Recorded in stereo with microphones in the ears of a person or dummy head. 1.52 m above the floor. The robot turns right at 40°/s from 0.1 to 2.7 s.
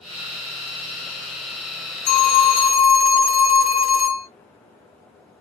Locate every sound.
2.1 s a phone ringing: 55° left (ahead or behind), 1.1 m; by 4.3 s 35° left (ahead or behind), 1.1 m